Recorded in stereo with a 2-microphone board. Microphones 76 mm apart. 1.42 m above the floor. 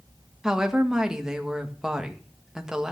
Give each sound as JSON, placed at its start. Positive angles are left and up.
{"t": 0.4, "sound": "a woman speaking", "side_deg": -10, "distance_m": 1.9}